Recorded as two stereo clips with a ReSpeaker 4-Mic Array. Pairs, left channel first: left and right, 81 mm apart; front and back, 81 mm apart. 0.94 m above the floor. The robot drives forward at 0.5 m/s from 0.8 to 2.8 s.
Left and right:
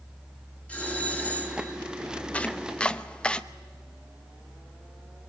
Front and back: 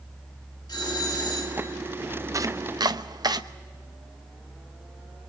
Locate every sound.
0.7 s a doorbell: 20° left, 2.5 m; by 1.8 s 30° left, 2.0 m
2.3 s chopping: 160° left, 0.6 m; by 3.4 s 165° left, 0.7 m